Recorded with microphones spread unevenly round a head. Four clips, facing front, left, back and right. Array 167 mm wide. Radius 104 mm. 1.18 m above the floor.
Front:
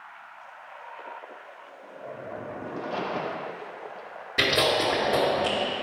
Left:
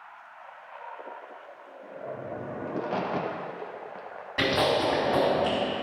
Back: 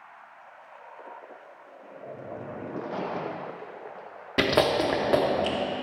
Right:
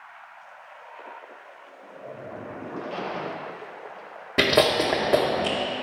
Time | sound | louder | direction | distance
2.7 | a crack | left 3 dB, front 1 dB | 75° left | 1.1 m
4.4 | chewing | right 4 dB, back 2 dB | 135° right | 1.1 m